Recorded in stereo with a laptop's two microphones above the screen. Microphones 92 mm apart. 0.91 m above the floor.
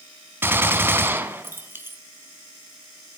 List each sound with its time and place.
0.4 s a gunshot: 25° right (ahead or behind), 1.9 m